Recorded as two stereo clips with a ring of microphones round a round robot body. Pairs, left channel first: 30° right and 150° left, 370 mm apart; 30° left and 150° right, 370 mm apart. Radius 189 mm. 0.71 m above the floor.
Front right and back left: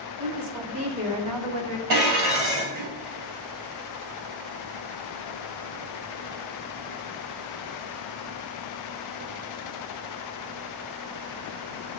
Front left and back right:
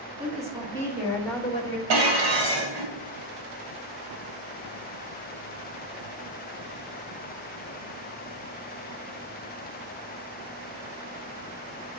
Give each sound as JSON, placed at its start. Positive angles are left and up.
{"t": 0.2, "sound": "a woman speaking", "azimuth_deg": 145, "distance_m": 2.5}
{"t": 1.9, "sound": "dishes clattering", "azimuth_deg": -175, "distance_m": 3.0}